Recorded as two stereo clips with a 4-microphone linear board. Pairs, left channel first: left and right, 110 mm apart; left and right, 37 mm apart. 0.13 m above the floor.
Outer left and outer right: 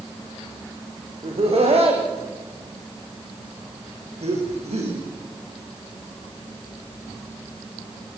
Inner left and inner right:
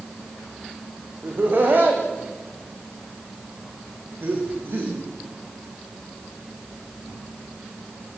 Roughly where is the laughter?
Right.